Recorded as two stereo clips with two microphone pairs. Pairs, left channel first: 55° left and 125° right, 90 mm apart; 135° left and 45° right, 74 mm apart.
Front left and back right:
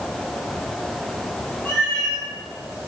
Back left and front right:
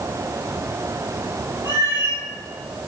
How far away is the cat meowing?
About 2 m.